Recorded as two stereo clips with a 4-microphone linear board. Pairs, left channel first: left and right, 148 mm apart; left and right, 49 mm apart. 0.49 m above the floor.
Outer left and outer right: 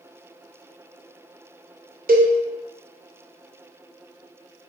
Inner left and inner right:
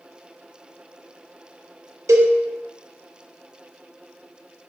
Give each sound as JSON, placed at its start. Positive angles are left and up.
{"t": 2.1, "sound": "a cowbell", "side_deg": -85, "distance_m": 0.6}